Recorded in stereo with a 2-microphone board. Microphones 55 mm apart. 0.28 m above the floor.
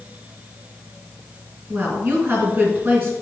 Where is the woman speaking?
30° right (ahead or behind), 3 m.